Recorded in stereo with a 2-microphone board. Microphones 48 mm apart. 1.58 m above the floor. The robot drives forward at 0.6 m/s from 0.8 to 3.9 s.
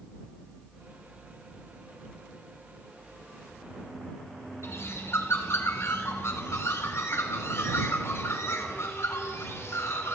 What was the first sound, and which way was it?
A bird, 65° left (ahead or behind).